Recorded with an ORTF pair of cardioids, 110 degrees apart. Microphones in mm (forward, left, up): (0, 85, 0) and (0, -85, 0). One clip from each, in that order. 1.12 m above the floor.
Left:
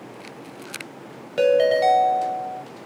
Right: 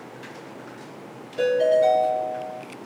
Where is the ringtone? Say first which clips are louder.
Left 2 dB; 60° left, 0.7 m.